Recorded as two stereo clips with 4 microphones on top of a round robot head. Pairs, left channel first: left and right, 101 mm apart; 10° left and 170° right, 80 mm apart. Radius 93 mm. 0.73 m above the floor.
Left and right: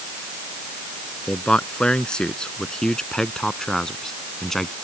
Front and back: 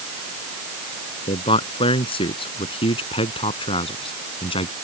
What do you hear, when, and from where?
1.3 s a man speaking: 10° left; by 4.7 s 5° left